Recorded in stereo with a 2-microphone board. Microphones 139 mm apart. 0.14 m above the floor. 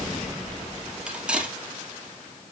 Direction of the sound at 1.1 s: 5° right (ahead or behind).